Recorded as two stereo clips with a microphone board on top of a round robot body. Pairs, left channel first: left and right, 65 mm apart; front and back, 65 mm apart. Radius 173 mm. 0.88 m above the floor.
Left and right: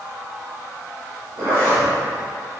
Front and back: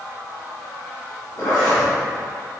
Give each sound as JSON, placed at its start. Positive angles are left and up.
{"t": 1.4, "sound": "a zipper", "azimuth_deg": -45, "distance_m": 1.9}